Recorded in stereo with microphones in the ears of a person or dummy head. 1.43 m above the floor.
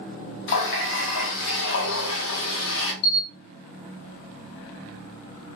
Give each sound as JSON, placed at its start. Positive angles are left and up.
{"t": 0.5, "sound": "a running tap", "side_deg": 60, "distance_m": 1.1}
{"t": 3.0, "sound": "a camera shutter", "side_deg": 60, "distance_m": 1.5}